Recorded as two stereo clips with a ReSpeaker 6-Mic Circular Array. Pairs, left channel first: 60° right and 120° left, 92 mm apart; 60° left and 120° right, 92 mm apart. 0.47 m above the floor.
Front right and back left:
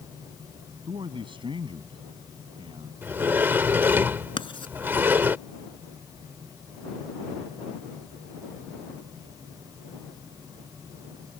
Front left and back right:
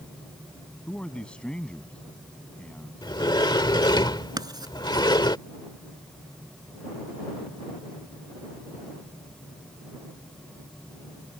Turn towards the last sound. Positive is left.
turn(degrees=-75)